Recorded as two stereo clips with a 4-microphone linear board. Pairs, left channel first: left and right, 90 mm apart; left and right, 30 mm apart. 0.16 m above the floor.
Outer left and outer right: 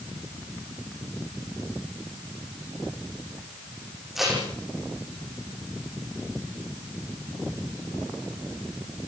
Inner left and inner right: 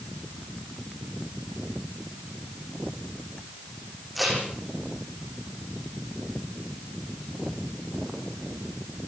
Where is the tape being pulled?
5° right (ahead or behind), 10 m.